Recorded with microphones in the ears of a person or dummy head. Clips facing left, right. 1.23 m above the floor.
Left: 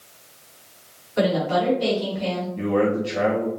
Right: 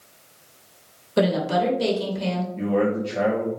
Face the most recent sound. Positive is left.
turn(degrees=0)  # may be behind; listen again after turning